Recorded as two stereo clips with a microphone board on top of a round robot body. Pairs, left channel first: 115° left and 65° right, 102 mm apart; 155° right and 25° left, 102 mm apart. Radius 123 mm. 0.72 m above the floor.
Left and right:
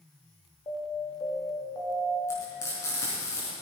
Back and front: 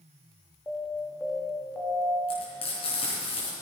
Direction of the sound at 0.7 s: 135° left.